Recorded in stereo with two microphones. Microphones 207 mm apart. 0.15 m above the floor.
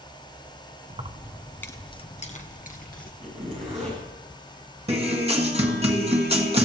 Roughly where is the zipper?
Right.